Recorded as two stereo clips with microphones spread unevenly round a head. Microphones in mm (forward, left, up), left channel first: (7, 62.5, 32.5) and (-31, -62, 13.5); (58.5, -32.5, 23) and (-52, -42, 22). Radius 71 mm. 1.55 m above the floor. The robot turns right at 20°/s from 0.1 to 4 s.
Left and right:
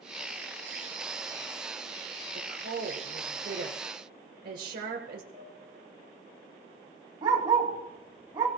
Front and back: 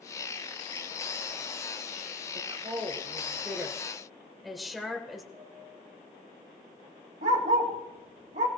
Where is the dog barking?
170° right, 2.5 m.